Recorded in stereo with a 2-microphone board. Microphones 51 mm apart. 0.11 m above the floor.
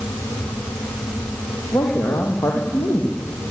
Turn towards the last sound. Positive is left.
turn(degrees=65)  # may be behind; listen again after turning